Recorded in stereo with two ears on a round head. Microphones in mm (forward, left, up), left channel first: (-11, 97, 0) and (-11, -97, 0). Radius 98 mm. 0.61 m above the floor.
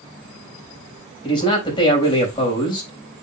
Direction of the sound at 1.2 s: 25° left (ahead or behind).